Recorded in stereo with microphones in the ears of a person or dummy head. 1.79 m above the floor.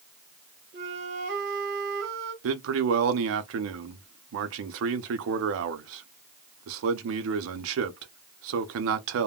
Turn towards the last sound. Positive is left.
turn(degrees=-65)  # may be behind; listen again after turning